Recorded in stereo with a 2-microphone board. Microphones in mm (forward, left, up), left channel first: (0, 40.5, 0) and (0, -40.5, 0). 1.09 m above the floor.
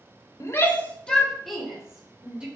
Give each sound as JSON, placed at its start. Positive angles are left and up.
{"t": 0.4, "sound": "a shout", "side_deg": 35, "distance_m": 1.6}